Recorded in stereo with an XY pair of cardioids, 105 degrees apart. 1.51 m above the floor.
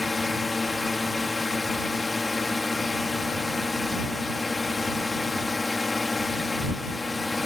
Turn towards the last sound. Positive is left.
turn(degrees=20)